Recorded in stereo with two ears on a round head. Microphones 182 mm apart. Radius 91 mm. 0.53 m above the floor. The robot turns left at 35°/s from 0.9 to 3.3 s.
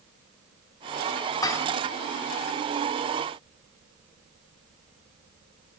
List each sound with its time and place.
1.4 s dishes clattering: 20° left (ahead or behind), 0.6 m; by 1.7 s 10° left (ahead or behind), 0.6 m